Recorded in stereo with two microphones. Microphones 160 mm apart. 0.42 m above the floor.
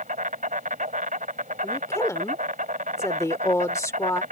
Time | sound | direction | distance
0.0 | an insect | 60° right (ahead or behind) | ?
1.6 | a woman speaking | 20° left (ahead or behind) | ?